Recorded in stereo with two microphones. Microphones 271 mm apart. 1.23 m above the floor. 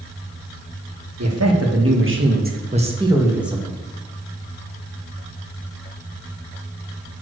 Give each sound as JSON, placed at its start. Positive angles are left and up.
{"t": 1.2, "sound": "a man speaking", "side_deg": -70, "distance_m": 1.7}